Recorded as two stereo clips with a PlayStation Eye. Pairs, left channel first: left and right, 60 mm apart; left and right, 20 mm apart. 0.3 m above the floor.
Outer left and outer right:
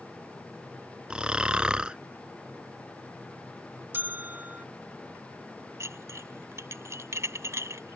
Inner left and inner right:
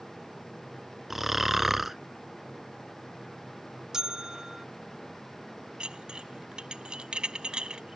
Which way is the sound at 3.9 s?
35° right (ahead or behind).